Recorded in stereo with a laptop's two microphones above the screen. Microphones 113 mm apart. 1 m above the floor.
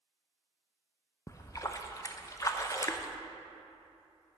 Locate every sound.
1.3 s a splash: 30° left (ahead or behind), 0.5 m